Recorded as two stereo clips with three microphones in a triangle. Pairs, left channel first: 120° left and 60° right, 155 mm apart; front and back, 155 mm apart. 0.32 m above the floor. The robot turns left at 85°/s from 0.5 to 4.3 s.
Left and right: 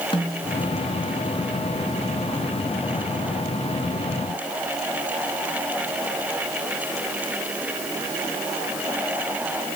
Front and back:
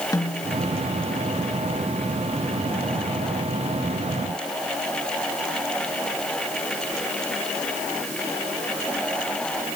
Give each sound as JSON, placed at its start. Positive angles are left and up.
{"t": 0.1, "sound": "a snare drum", "azimuth_deg": 65, "distance_m": 4.5}